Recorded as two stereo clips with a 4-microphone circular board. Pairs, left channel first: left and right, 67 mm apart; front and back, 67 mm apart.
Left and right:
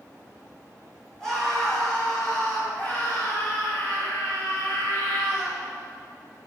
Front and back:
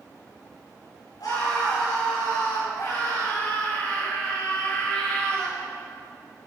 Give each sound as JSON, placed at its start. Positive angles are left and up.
{"t": 1.2, "sound": "a scream", "azimuth_deg": 10, "distance_m": 5.5}